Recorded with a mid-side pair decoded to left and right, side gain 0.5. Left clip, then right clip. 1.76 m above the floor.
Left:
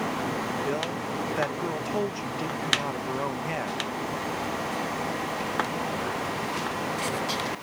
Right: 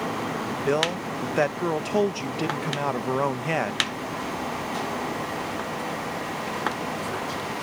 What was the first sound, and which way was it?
A man speaking, 45° right.